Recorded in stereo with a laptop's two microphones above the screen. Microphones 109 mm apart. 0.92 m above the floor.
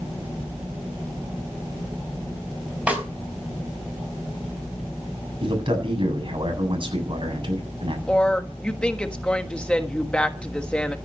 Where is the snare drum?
10° right (ahead or behind), 5 m.